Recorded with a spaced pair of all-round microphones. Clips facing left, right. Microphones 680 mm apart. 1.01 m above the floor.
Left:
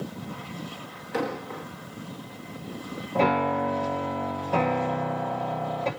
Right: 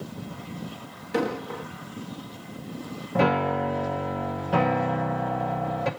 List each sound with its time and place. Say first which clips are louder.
1.1 s an explosion: right 3 dB; 55° right (ahead or behind), 1.1 m
3.1 s a piano: right 1 dB; 40° right (ahead or behind), 0.9 m